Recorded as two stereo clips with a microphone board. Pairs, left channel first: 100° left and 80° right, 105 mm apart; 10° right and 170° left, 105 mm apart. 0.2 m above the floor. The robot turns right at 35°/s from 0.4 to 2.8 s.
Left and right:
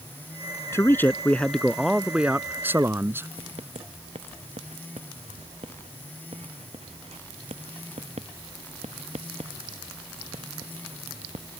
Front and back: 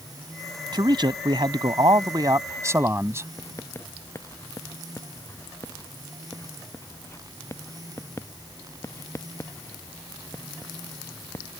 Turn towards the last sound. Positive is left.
turn(degrees=-75)